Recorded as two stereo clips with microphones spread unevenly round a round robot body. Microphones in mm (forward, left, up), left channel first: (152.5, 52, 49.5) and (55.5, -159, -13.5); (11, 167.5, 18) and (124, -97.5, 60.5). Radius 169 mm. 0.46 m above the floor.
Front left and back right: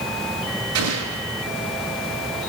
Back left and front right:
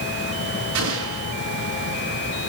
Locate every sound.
0.8 s an explosion: 115° right, 7 m